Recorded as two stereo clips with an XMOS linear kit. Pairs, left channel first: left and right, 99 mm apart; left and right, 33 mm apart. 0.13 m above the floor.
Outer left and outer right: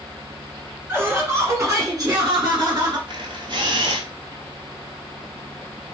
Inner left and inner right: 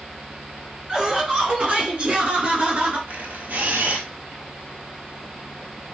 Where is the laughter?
20° right (ahead or behind), 2 m; by 3.0 s 45° right (ahead or behind), 2.5 m.